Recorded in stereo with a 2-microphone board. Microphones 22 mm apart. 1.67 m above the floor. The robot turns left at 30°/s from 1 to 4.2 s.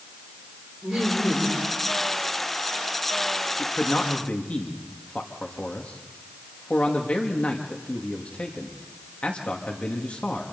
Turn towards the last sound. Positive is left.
turn(degrees=75)  # may be behind; listen again after turning